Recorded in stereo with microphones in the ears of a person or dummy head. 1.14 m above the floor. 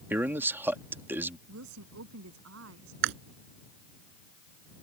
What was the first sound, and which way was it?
A man speaking, 10° right (ahead or behind).